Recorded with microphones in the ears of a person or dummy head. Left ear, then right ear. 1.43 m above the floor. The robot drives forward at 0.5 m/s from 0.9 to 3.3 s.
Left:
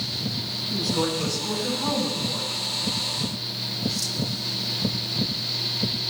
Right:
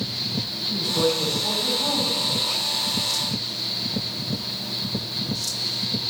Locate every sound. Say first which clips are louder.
0.7 s a woman speaking: right 4 dB; 15° right (ahead or behind), 6.5 m; by 2.5 s 10° right (ahead or behind), 7.5 m